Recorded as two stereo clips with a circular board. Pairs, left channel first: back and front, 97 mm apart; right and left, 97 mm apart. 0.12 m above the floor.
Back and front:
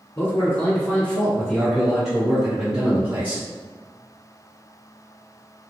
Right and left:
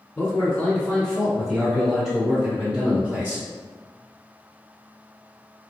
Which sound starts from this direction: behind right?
A man speaking, at 0.1 s.